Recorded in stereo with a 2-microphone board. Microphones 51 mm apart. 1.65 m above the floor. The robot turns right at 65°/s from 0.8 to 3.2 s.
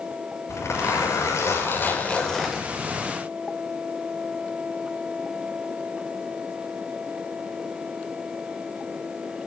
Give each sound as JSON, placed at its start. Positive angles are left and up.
{"t": 0.5, "sound": "a zipper", "azimuth_deg": 70, "distance_m": 6.0}